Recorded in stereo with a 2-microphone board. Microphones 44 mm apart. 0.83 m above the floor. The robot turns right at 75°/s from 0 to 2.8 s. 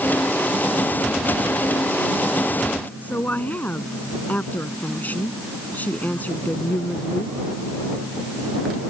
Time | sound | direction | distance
3.0 | a woman speaking | 40° left (ahead or behind) | ?